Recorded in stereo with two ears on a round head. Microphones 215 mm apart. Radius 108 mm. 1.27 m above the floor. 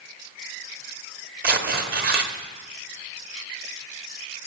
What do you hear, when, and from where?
1.4 s tearing paper: 40° right (ahead or behind), 1.5 m